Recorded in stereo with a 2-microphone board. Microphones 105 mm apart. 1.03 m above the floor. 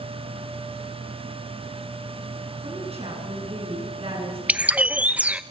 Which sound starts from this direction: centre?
A bird, at 4.5 s.